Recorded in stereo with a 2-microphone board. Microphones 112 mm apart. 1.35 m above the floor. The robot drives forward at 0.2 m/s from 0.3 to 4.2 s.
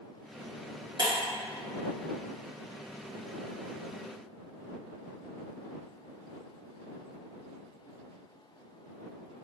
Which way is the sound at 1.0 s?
45° right (ahead or behind).